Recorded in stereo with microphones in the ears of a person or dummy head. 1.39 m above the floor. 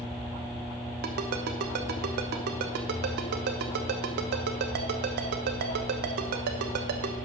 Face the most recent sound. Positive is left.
turn(degrees=-55)  # may be behind; listen again after turning